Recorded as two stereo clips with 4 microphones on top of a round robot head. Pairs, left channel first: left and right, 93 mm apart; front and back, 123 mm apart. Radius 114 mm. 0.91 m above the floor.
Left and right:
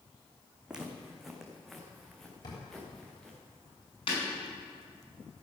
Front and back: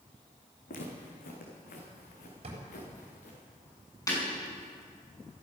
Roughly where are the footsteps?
Ahead.